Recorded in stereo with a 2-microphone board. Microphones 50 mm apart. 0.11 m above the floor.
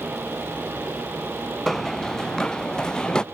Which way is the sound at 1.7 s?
10° left (ahead or behind).